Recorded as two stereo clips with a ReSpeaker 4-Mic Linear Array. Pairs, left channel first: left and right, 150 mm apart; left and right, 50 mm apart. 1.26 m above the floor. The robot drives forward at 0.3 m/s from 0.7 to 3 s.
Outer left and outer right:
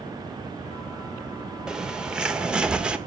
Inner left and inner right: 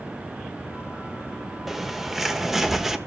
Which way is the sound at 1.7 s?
5° right (ahead or behind).